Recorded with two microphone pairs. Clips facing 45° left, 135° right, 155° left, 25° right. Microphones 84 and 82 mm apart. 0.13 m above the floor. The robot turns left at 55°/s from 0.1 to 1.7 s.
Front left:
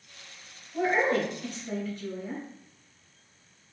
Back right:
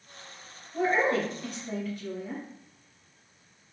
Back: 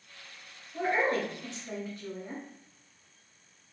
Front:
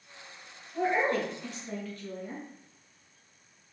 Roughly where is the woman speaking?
Behind.